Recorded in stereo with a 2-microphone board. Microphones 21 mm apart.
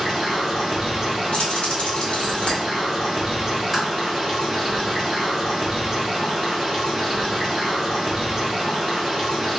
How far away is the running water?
About 1.4 m.